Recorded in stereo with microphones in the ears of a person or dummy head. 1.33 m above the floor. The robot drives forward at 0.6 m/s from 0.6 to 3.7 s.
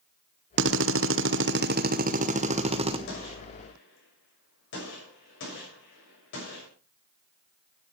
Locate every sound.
0.6 s a drill: 60° right (ahead or behind), 0.8 m; by 3.0 s 30° right (ahead or behind), 1.4 m
3.1 s a gunshot: 65° left (ahead or behind), 6.5 m